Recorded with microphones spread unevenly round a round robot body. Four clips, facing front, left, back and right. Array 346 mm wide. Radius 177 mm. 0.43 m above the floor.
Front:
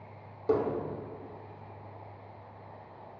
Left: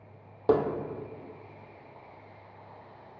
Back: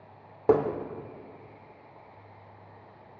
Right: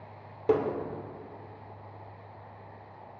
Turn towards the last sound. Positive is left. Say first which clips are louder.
# left 1 dB, back 5 dB
turn(degrees=175)